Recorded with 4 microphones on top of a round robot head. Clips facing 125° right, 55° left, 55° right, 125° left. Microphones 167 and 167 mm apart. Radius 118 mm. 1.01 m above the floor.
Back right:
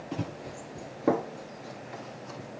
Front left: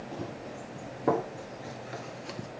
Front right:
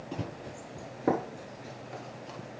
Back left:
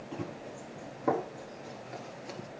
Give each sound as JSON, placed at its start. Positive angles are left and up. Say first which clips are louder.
{"t": 0.1, "sound": "running footsteps", "louder": "back right 4 dB, front right 1 dB", "azimuth_deg": -100, "distance_m": 1.5}